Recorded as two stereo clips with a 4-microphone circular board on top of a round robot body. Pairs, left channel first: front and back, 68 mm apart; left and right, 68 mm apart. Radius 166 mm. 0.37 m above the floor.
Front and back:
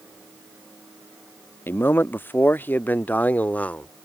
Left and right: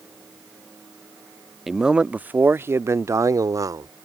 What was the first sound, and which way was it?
A man speaking, 10° right.